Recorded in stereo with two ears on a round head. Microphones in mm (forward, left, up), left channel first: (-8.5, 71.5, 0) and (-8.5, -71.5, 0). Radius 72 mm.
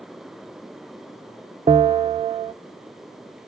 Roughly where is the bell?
Right.